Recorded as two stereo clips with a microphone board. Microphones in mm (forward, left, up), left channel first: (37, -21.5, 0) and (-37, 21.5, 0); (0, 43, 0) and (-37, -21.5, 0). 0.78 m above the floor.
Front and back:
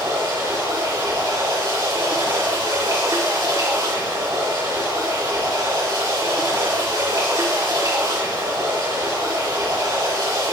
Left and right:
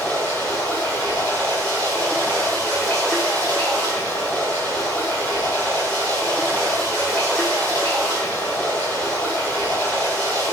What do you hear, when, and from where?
0.0 s running water: 115° left, 3 m